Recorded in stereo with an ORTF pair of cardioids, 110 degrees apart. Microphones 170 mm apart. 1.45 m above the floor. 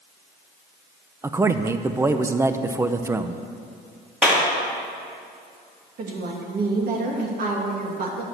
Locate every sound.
1.2 s a man speaking: 15° right, 0.7 m
4.2 s a clap: 5° right, 2.5 m
6.0 s a woman speaking: 55° right, 2.5 m